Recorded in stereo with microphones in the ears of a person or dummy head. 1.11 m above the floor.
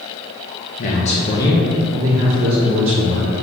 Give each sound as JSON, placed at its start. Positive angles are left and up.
{"t": 0.8, "sound": "a man speaking", "side_deg": 40, "distance_m": 1.0}